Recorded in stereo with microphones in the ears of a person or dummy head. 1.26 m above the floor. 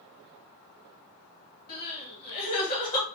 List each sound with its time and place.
1.7 s crying: 45° left (ahead or behind), 1.6 m